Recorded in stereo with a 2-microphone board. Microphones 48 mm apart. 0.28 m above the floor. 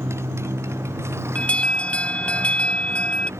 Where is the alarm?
30° left (ahead or behind).